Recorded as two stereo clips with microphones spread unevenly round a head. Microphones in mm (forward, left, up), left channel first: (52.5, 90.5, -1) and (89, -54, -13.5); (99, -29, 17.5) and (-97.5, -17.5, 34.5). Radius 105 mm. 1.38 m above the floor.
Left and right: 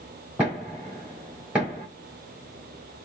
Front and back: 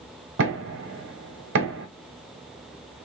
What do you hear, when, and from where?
0.4 s knocking: 160° right, 0.9 m